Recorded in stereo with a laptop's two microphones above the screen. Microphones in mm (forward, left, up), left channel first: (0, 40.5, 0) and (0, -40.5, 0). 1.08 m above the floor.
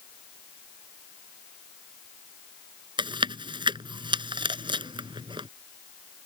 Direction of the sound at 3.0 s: 85° right.